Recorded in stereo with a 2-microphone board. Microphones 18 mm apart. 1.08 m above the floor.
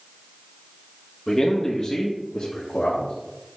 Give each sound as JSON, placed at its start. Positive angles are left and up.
{"t": 1.3, "sound": "a man speaking", "side_deg": 15, "distance_m": 1.5}